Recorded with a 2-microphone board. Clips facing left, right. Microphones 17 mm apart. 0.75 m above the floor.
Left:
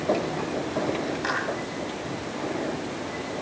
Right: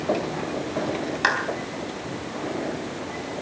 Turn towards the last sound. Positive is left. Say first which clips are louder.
# right 7 dB
turn(degrees=-45)  # may be behind; listen again after turning